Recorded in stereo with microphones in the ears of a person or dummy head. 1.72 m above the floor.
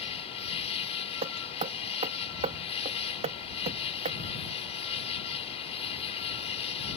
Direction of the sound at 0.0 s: 40° left (ahead or behind).